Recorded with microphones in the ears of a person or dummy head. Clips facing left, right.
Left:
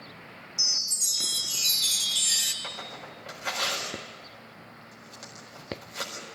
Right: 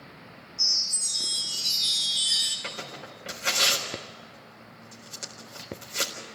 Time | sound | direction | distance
0.6 | a chime | 40° left (ahead or behind) | 2.5 m
2.6 | tearing paper | 45° right (ahead or behind) | 4 m